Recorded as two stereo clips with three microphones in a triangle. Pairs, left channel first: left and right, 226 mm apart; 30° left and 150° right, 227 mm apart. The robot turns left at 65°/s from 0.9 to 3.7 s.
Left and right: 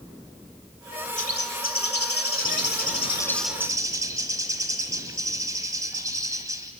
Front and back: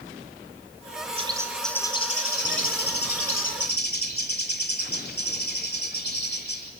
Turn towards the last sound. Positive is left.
turn(degrees=-15)